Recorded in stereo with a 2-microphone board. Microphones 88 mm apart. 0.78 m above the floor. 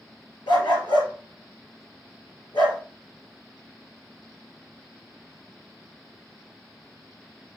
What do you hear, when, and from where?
0.5 s a dog barking: 60° left (ahead or behind), 3.5 m